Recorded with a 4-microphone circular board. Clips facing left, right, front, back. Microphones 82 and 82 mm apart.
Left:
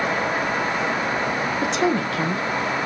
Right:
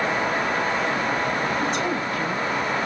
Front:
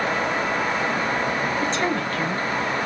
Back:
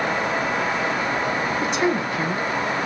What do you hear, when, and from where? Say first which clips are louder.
1.6 s a woman speaking: left 3 dB, back 2 dB; 100° left, 1.5 m